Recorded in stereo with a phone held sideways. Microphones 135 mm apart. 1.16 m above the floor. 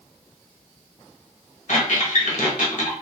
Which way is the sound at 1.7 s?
70° left (ahead or behind).